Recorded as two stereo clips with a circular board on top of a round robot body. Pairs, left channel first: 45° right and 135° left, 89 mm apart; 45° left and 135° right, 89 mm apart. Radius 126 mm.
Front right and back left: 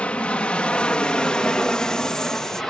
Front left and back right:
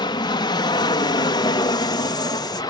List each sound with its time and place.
0.0 s an aircraft: 30° left; by 2.7 s 40° left